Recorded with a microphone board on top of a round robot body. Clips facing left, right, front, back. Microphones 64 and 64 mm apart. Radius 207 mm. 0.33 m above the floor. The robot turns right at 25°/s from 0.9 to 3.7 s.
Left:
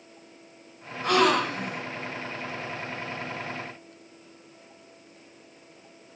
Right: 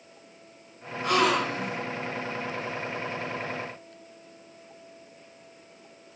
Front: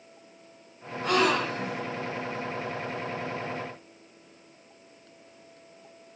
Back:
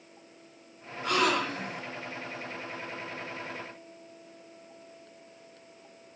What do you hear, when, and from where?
1.0 s a gasp: 40° left, 3.5 m; by 1.8 s 60° left, 3.5 m